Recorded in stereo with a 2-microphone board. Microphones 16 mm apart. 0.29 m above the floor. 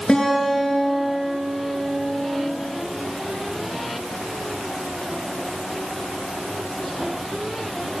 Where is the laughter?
No laughter in this recording.